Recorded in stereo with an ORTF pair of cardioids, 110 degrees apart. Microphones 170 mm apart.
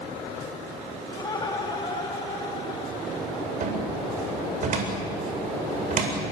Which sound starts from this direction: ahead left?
Laughter, at 1.1 s.